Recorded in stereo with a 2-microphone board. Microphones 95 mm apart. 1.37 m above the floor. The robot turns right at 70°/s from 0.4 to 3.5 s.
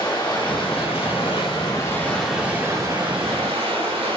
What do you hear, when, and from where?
0.0 s running water: 50° left, 2.5 m; by 4.2 s 95° right, 2.5 m